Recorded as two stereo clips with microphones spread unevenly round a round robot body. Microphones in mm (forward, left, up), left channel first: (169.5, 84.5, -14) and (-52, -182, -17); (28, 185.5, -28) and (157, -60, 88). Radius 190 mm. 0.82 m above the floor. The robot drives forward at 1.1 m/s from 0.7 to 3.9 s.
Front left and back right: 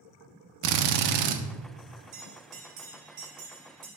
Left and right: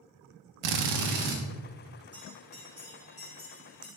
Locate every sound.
0.6 s a drill: 90° right, 0.9 m; by 1.4 s 130° right, 1.2 m
2.1 s a bell: 160° right, 2.5 m; by 3.9 s 165° right, 4.5 m